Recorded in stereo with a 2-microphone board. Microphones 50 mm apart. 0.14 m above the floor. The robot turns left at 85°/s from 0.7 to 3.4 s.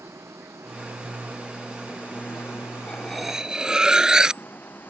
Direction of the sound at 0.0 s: 85° right.